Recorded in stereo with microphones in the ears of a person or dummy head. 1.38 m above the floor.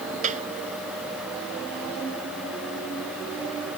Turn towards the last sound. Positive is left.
turn(degrees=-45)  # may be behind; listen again after turning